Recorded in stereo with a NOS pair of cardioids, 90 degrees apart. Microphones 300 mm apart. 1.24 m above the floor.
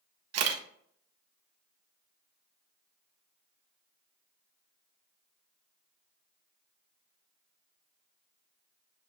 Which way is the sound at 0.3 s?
60° right.